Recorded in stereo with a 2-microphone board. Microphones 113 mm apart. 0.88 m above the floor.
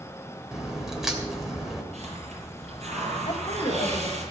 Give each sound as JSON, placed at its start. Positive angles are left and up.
{"t": 0.5, "sound": "a crack", "side_deg": -5, "distance_m": 2.5}
{"t": 1.9, "sound": "a hiss", "side_deg": -80, "distance_m": 6.0}
{"t": 3.2, "sound": "a woman speaking", "side_deg": 55, "distance_m": 2.5}